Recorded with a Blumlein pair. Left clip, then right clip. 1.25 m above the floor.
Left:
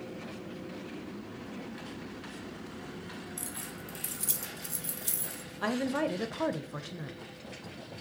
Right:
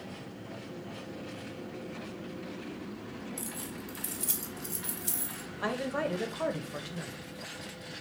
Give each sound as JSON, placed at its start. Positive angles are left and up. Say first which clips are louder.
{"t": 3.4, "sound": "keys jangling", "louder": "right 1 dB", "azimuth_deg": 10, "distance_m": 0.8}
{"t": 5.6, "sound": "a woman speaking", "louder": "left 1 dB", "azimuth_deg": 5, "distance_m": 0.6}